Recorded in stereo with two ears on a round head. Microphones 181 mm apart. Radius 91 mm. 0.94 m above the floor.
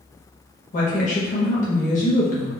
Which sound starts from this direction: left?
A woman speaking, at 0.7 s.